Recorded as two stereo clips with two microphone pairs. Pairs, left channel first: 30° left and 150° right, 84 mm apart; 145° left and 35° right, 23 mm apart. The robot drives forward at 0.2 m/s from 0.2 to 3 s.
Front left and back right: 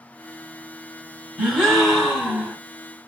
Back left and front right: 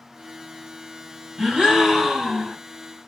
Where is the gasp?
55° right, 1.9 m; by 2.6 s 65° right, 1.8 m.